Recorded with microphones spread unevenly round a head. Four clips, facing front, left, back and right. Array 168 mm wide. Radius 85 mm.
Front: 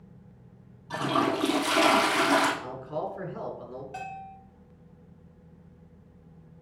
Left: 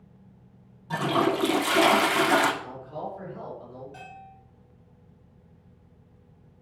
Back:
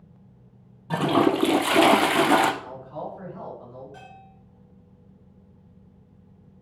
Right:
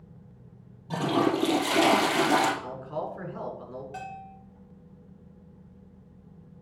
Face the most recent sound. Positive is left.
turn(degrees=-55)